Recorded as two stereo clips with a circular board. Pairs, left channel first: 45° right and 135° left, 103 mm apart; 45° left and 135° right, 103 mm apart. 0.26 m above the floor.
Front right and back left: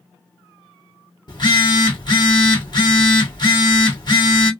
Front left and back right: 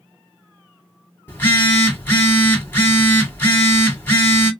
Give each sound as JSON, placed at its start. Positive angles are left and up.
{"t": 1.3, "sound": "a phone buzzing", "azimuth_deg": -20, "distance_m": 1.6}